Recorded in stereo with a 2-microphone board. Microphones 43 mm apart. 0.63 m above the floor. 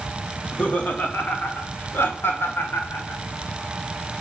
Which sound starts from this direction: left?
Laughter, at 0.4 s.